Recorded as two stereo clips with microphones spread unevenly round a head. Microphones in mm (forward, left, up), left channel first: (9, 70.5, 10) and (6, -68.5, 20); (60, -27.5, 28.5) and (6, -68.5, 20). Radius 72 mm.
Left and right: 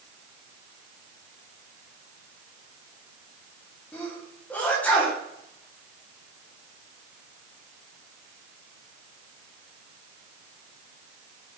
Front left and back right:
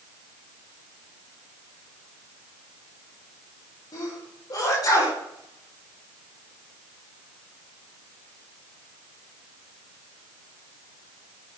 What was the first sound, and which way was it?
A sneeze, 10° left.